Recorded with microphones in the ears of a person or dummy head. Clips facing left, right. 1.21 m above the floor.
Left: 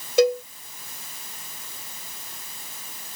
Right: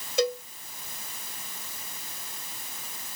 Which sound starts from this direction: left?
A cowbell, at 0.2 s.